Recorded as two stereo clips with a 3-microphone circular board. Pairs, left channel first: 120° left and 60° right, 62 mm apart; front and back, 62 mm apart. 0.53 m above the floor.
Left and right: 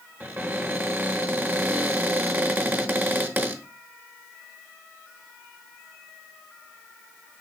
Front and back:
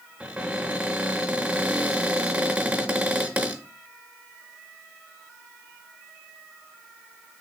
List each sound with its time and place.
0.2 s a cupboard door: 115° right, 0.6 m